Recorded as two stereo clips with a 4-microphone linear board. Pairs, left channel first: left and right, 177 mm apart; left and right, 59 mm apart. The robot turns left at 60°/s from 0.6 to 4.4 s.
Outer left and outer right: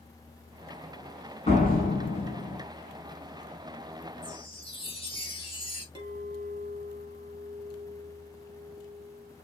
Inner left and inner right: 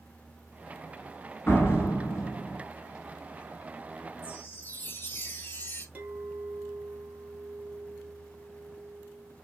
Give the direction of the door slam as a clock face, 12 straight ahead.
7 o'clock.